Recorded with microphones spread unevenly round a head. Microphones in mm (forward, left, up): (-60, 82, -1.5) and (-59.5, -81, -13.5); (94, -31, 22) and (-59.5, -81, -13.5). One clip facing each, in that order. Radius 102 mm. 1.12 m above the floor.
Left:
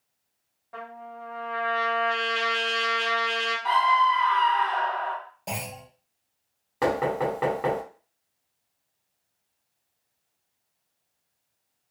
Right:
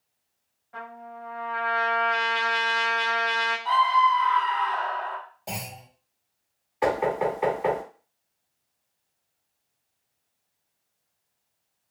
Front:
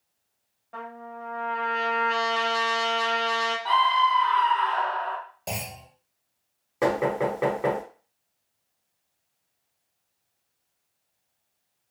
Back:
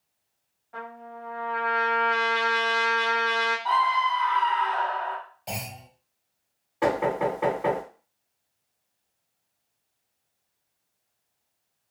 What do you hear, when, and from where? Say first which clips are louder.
0.7 s a trumpet: left 1 dB, front 1 dB; 55° left, 1.5 m
3.6 s a scream: even, front 2 dB; 100° left, 1.3 m
5.5 s a clunk: left 2 dB, front 1 dB; 20° left, 1.4 m
6.8 s knocking: right 1 dB, even; 65° left, 1.7 m